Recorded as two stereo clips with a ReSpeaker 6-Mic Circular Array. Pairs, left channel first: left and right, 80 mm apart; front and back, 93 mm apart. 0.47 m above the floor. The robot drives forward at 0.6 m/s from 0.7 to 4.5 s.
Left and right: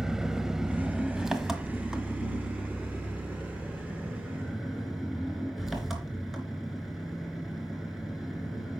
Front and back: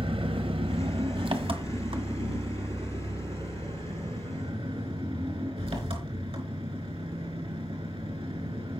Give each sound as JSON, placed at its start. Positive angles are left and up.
{"t": 0.0, "sound": "an engine running", "azimuth_deg": -175, "distance_m": 1.1}